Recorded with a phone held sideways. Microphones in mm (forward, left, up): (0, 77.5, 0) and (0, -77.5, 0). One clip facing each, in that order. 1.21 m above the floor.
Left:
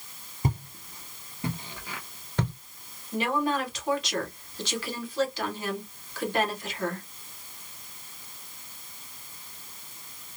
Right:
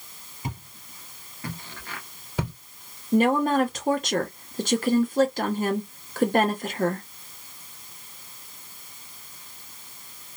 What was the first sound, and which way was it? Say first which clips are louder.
Footsteps: left 5 dB; 45° left (ahead or behind).